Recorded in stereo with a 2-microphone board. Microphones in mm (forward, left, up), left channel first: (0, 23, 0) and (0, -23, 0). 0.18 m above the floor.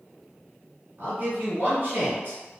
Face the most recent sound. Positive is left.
turn(degrees=-40)  # may be behind; listen again after turning